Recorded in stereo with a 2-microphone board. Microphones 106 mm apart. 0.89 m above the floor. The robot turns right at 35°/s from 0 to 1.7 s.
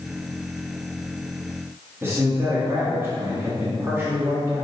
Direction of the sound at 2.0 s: 25° right (ahead or behind).